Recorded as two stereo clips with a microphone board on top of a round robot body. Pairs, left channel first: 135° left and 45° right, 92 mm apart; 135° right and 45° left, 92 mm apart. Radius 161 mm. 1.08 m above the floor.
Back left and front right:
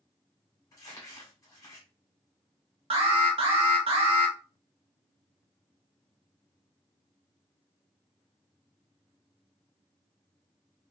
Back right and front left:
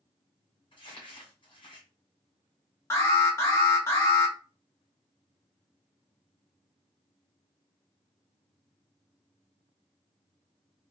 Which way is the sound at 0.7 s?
170° right.